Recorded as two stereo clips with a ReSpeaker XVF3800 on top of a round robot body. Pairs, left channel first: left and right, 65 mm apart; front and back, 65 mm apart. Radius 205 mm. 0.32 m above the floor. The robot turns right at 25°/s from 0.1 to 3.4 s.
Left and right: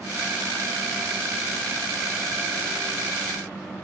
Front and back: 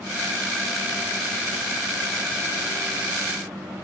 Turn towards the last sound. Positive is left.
No sound to turn to.